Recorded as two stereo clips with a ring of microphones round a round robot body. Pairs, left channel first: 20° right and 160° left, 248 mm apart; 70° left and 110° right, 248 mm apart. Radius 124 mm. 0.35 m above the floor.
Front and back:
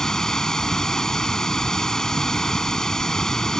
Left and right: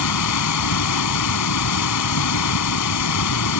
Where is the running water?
65° left.